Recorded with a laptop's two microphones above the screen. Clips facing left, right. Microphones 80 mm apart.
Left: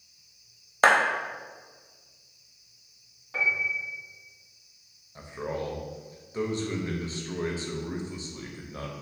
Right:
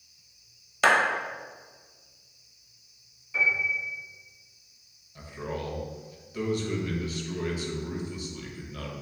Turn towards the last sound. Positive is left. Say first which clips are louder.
# left 2 dB
turn(degrees=30)  # may be behind; listen again after turning